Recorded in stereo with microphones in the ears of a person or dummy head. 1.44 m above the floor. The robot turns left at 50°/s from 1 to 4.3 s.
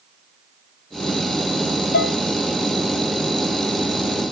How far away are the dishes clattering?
About 0.9 m.